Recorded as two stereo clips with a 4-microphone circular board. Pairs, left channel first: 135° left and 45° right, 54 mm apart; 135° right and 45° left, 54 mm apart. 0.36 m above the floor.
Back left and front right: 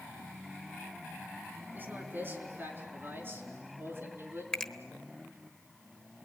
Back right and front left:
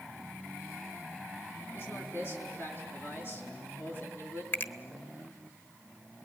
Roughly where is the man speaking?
Right.